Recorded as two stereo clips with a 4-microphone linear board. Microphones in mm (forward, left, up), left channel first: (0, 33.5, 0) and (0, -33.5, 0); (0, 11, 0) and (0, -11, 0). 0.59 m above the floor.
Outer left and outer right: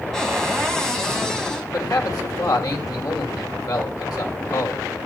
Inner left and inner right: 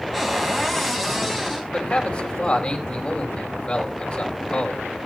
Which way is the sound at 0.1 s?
5° left (ahead or behind).